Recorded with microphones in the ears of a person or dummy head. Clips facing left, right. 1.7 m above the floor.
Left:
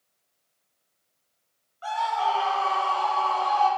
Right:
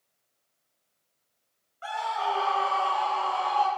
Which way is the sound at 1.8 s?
35° right (ahead or behind).